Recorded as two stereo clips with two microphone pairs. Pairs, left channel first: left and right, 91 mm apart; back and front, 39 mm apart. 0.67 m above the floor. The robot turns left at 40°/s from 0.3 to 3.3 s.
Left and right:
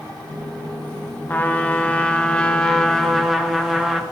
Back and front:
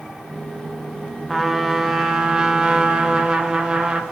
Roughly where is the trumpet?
Left.